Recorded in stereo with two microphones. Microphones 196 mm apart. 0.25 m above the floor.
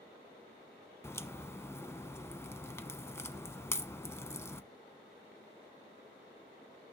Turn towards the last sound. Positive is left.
turn(degrees=15)  # may be behind; listen again after turning